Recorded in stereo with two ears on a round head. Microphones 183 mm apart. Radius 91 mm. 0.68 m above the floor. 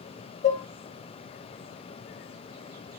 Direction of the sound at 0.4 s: 35° left (ahead or behind).